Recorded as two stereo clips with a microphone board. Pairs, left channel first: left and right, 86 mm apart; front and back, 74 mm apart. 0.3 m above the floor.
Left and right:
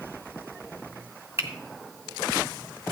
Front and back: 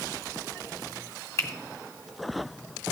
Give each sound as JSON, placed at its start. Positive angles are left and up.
{"t": 1.4, "sound": "a finger snap", "azimuth_deg": -40, "distance_m": 1.8}